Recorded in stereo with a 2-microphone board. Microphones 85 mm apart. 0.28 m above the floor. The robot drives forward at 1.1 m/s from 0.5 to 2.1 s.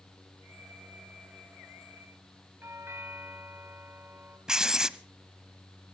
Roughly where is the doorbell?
Right.